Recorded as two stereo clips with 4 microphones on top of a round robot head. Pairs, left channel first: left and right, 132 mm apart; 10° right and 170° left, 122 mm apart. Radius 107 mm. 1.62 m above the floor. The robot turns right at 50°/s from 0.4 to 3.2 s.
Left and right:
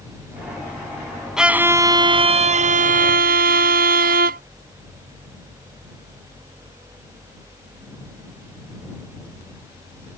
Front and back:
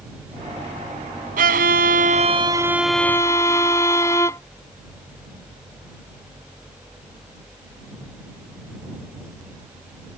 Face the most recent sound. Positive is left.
turn(degrees=-85)